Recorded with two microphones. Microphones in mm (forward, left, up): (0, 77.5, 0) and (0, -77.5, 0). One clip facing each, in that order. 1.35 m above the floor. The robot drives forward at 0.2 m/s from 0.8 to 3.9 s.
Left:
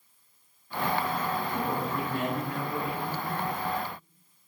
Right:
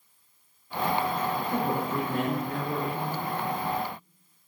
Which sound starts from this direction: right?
A woman speaking, at 1.5 s.